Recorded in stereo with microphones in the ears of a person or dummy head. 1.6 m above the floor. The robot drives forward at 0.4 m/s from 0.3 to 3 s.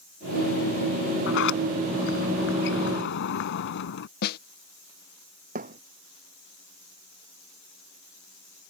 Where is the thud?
45° right (ahead or behind).